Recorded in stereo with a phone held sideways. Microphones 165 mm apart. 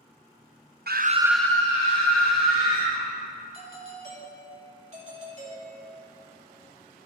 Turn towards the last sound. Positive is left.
turn(degrees=-45)  # may be behind; listen again after turning